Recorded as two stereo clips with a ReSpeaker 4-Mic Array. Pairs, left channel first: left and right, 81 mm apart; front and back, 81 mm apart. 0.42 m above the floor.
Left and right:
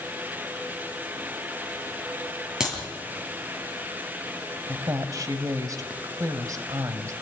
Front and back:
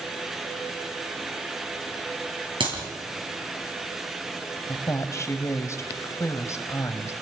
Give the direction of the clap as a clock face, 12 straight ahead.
6 o'clock.